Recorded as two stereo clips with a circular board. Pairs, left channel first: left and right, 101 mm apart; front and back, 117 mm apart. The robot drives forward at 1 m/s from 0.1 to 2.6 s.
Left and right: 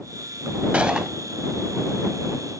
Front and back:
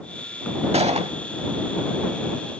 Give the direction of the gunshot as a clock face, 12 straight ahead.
6 o'clock.